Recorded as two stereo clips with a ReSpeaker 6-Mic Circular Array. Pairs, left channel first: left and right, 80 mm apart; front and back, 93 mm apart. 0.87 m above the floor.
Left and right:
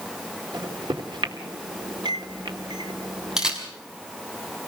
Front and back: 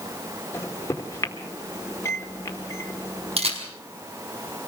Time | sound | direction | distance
0.5 | a microwave | 60° right | 1.8 m
3.4 | a camera shutter | 175° right | 4.5 m